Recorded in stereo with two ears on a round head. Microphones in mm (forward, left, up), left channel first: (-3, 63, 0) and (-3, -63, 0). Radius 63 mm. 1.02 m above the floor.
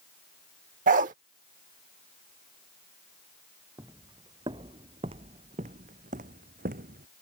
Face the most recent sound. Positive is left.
turn(degrees=-70)  # may be behind; listen again after turning